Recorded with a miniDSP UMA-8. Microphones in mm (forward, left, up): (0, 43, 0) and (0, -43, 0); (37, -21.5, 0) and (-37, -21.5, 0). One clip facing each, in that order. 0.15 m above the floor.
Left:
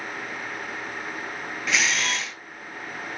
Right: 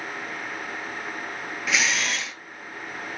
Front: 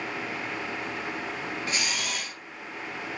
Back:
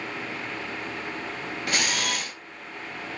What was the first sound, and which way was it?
A camera shutter, straight behind.